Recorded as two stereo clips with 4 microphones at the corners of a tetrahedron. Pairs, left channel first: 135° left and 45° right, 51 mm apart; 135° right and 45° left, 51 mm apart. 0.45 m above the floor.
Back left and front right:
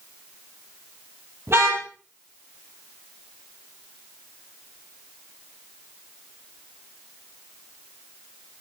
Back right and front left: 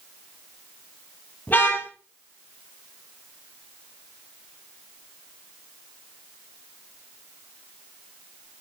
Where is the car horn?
80° right, 5.5 m.